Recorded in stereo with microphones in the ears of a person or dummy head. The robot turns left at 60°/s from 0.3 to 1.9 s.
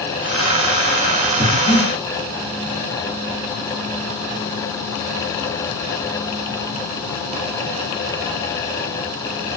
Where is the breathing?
20° left (ahead or behind), 1.6 m; by 1.9 s 50° left (ahead or behind), 1.6 m.